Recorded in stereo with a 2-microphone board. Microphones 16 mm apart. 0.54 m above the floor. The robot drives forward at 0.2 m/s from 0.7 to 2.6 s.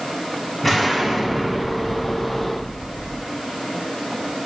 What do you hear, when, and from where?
0.6 s an explosion: 20° left (ahead or behind), 2.5 m